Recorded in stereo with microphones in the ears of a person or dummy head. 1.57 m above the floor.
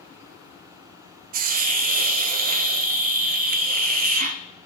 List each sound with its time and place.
1.3 s a hiss: 45° right (ahead or behind), 0.6 m